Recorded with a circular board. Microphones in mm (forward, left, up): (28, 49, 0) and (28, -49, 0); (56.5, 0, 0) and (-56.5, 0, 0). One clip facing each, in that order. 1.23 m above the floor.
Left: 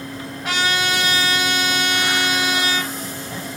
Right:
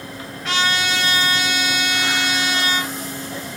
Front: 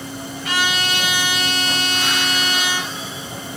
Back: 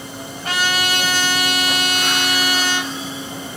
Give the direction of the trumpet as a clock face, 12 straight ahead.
7 o'clock.